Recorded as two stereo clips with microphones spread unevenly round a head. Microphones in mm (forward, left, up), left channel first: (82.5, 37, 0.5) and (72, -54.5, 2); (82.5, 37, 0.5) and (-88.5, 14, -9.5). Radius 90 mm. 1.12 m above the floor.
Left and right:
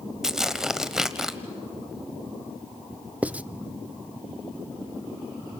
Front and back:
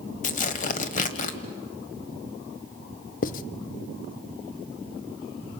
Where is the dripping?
No dripping in this recording.